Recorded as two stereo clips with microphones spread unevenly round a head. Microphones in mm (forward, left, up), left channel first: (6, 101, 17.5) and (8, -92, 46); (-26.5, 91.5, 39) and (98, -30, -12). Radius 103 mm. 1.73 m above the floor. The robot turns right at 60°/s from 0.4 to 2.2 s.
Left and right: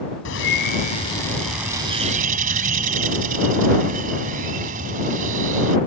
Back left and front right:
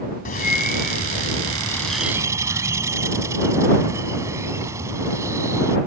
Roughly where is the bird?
Behind left.